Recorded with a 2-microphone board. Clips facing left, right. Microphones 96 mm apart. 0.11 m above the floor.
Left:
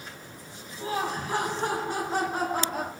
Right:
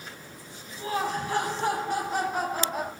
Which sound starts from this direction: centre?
Laughter, at 0.8 s.